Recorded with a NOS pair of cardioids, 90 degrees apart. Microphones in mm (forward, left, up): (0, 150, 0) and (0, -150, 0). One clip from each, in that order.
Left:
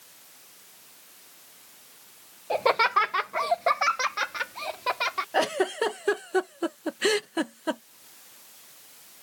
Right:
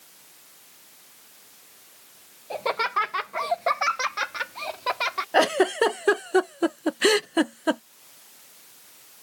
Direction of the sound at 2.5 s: 30° left.